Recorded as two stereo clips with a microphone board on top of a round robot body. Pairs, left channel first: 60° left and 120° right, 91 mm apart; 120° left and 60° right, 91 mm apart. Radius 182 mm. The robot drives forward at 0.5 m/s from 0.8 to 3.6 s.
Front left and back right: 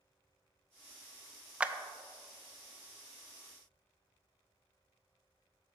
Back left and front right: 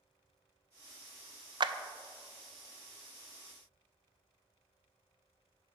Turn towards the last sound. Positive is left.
turn(degrees=-160)